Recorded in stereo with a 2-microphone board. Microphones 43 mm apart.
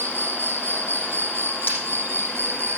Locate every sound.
0.0 s an insect: 65° right (ahead or behind), 2.5 m
1.7 s breaking glass: 40° left (ahead or behind), 6 m